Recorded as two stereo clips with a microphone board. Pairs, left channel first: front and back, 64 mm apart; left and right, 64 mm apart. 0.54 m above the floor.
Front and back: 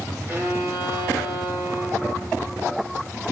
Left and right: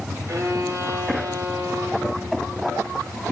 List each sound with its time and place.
0.3 s a violin: 130° right, 3 m